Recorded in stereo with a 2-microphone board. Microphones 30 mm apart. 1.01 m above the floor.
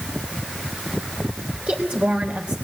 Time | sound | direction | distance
1.7 | a woman speaking | 60° right (ahead or behind) | 3.5 m